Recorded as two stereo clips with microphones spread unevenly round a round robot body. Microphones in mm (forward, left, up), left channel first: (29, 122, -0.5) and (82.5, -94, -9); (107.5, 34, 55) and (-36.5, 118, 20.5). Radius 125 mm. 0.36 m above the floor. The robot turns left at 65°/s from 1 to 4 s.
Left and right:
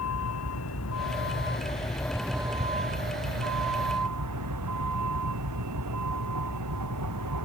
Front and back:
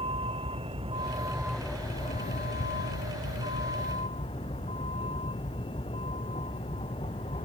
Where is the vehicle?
95° left; by 7.5 s 100° right.